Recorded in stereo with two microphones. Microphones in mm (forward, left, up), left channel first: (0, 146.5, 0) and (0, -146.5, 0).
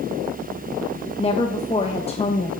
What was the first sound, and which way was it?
A woman speaking, 20° left (ahead or behind).